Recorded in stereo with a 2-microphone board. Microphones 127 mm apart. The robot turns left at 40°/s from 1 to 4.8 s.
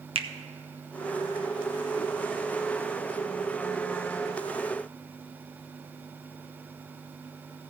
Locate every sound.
0.1 s a finger snap: 45° right (ahead or behind), 0.5 m